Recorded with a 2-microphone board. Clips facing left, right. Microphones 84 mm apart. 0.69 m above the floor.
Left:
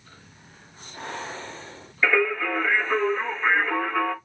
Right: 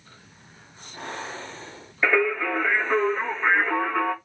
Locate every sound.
2.0 s singing: 20° right (ahead or behind), 1.3 m